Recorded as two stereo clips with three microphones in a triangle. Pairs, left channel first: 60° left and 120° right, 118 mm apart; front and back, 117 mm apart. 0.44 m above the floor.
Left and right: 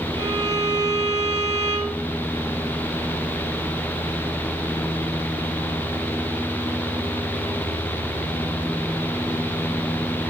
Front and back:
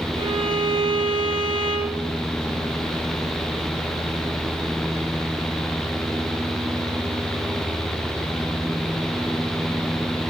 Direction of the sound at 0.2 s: 165° right.